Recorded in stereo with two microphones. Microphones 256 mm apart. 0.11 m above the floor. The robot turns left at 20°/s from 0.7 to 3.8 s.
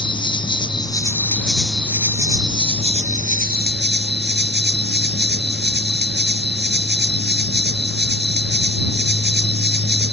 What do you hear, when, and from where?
0.0 s an insect: 20° left; by 10.1 s 45° right